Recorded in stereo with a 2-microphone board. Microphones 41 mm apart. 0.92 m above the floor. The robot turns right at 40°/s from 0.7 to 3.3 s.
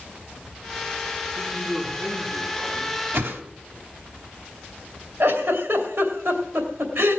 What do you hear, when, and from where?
1.4 s a man speaking: 155° left, 9.5 m; by 3.0 s 140° right, 9.5 m
3.1 s a whoosh: 65° right (ahead or behind), 1.5 m; by 3.4 s 70° right (ahead or behind), 1.5 m
5.2 s a giggle: 80° right, 2.5 m